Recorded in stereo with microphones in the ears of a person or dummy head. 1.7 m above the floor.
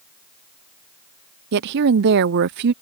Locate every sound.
1.5 s a woman speaking: 55° right (ahead or behind)